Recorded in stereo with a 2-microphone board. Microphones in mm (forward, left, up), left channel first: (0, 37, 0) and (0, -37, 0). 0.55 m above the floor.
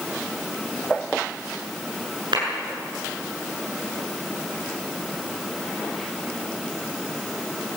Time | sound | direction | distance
2.3 | a clap | 85° right | 7.5 m